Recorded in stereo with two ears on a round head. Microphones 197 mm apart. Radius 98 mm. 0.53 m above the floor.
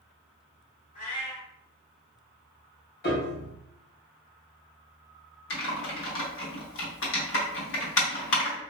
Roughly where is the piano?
Left.